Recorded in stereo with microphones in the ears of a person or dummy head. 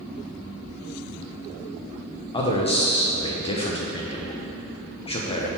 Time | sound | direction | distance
2.3 | a man speaking | 30° left (ahead or behind) | 1.1 m